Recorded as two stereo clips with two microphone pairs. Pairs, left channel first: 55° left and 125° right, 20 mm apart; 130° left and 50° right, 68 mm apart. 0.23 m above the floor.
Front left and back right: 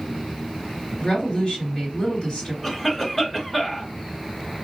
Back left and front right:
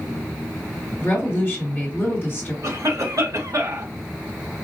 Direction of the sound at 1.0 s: 90° left.